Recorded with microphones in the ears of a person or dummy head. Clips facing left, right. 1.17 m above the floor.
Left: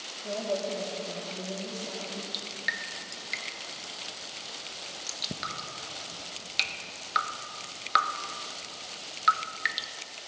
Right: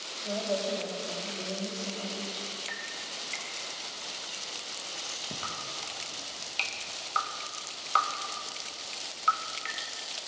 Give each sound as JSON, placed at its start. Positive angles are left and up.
{"t": 0.2, "sound": "a woman speaking", "side_deg": 10, "distance_m": 2.0}
{"t": 2.3, "sound": "dripping", "side_deg": 20, "distance_m": 0.5}